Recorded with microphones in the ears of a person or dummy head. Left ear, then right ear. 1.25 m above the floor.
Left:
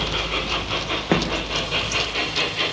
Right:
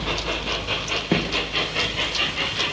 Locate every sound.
1.1 s footsteps: 45° left (ahead or behind), 4 m